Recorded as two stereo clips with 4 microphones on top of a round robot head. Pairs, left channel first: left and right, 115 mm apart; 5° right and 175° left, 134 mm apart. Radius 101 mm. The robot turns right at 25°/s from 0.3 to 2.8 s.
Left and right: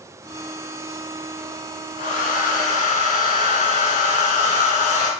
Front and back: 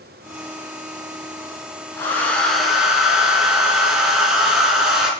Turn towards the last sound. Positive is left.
turn(degrees=90)